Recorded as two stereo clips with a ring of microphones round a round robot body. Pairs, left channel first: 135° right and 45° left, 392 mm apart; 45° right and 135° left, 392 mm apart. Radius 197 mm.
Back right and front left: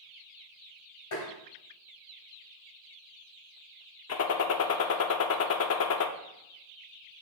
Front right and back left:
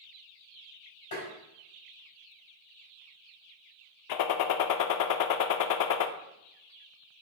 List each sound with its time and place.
1.1 s tapping: 90° right, 3.5 m
4.1 s a gunshot: 80° right, 0.5 m